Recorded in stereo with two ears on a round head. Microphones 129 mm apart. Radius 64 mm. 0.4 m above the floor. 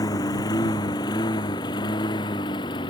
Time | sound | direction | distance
0.0 | a lawn mower | 25° left (ahead or behind) | ?